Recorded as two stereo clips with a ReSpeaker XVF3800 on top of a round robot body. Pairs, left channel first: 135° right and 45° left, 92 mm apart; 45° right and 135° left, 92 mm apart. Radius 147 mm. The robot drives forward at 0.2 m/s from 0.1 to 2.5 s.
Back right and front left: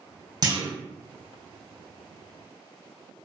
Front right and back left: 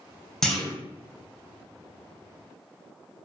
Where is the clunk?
40° left, 0.9 m; by 0.7 s 45° left, 0.9 m.